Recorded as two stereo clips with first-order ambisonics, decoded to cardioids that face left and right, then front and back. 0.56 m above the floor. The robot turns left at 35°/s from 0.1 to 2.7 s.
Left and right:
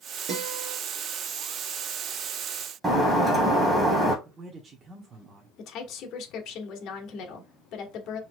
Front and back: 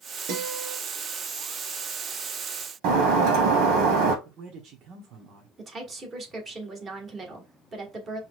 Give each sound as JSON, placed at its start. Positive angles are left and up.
{"t": 0.3, "sound": "a guitar", "azimuth_deg": -155, "distance_m": 2.5}
{"t": 2.8, "sound": "breaking glass", "azimuth_deg": -165, "distance_m": 1.9}
{"t": 4.2, "sound": "a man speaking", "azimuth_deg": -150, "distance_m": 0.9}
{"t": 5.6, "sound": "a woman speaking", "azimuth_deg": 120, "distance_m": 1.6}